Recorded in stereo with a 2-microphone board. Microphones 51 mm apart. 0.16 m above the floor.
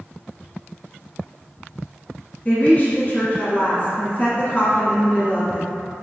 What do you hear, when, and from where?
2.5 s a woman speaking: 30° left (ahead or behind), 1.5 m